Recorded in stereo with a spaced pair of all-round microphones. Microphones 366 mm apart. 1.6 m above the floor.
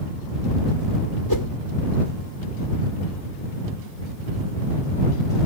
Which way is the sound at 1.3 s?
70° left (ahead or behind).